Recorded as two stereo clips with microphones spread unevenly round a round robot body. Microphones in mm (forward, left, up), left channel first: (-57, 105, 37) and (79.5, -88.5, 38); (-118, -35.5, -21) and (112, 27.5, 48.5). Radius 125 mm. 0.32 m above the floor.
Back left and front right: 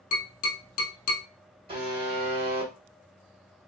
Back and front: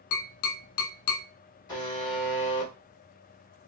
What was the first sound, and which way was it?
Tapping, 175° right.